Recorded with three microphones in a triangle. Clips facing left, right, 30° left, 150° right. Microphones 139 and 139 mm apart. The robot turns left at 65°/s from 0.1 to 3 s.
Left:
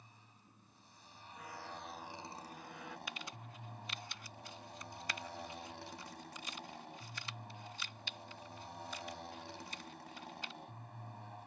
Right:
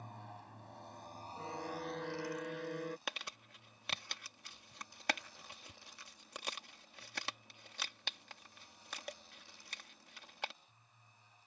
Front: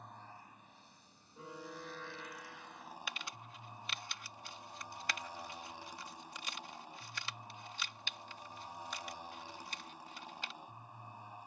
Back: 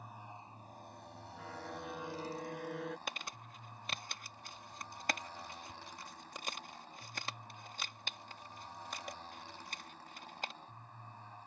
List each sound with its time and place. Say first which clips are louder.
0.0 s a motorcycle: right 13 dB, back 2 dB; 65° right; by 11.5 s 105° left
1.4 s a violin: right 6 dB, back 1 dB; 35° right; by 3.0 s 135° right
3.1 s crumpling: right 1 dB, back 2 dB; 105° right